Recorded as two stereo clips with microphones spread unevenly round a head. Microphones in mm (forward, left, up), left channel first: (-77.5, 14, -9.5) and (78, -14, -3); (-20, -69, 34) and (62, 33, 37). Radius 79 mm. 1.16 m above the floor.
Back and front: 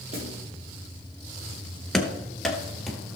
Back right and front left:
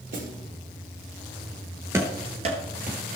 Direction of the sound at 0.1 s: 40° left.